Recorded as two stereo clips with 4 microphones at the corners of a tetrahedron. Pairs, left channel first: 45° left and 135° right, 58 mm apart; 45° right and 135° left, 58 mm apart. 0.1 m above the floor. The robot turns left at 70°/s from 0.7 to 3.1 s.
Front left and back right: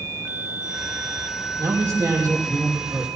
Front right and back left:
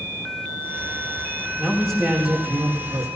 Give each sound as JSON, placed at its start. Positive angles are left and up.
{"t": 1.6, "sound": "a man speaking", "azimuth_deg": -105, "distance_m": 6.0}